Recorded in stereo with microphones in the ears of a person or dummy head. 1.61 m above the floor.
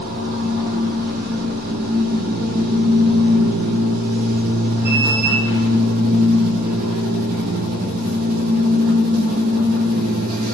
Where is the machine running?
50° right (ahead or behind), 0.9 m.